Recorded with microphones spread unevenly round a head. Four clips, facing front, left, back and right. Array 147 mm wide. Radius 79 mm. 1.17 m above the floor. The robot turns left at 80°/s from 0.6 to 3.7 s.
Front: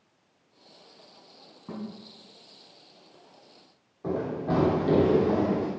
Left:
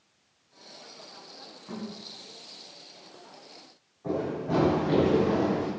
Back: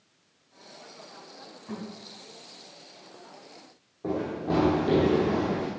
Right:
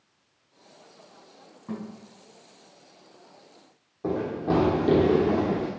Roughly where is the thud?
Ahead right.